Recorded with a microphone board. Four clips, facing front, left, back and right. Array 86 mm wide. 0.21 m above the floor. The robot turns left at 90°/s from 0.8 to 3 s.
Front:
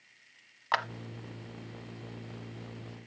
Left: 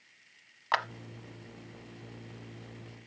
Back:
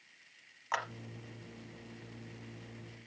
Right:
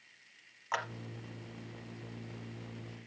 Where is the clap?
50° left, 0.9 m; by 0.8 s 45° left, 0.9 m.